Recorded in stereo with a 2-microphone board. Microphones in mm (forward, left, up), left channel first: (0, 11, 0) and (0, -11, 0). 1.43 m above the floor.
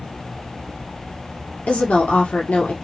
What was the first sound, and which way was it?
A woman speaking, 85° left.